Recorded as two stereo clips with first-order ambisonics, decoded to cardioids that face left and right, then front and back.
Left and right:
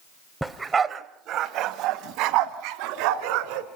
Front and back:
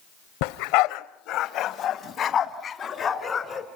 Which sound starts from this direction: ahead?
A dog barking, at 0.4 s.